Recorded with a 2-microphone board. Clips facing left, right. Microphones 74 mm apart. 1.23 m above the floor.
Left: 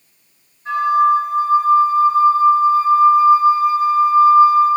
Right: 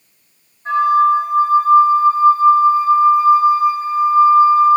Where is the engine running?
I don't hear an engine running.